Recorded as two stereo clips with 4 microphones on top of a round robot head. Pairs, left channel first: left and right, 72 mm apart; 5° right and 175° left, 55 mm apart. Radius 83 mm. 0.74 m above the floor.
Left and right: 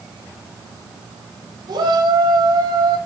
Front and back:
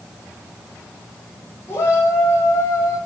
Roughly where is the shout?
Ahead right.